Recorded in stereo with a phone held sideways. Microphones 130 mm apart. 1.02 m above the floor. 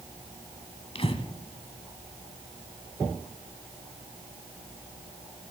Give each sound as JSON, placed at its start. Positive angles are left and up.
{"t": 0.9, "sound": "breathing", "side_deg": 50, "distance_m": 1.2}